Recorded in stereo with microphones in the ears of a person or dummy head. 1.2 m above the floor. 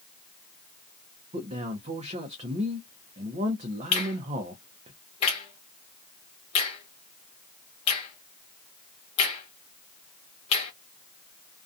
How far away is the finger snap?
About 0.9 m.